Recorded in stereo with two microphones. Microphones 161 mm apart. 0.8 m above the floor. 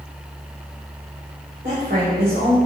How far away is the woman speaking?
About 3 m.